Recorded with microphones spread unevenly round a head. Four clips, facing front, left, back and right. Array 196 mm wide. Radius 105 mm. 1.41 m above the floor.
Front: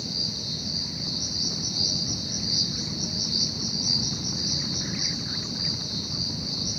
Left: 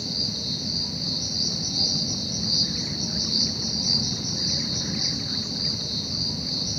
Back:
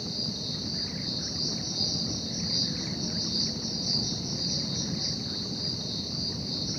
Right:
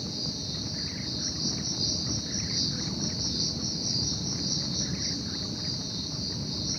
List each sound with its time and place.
0.0 s an insect: 100° left, 4 m